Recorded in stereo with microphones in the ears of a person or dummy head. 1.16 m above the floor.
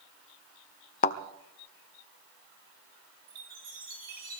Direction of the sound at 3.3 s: 50° right (ahead or behind).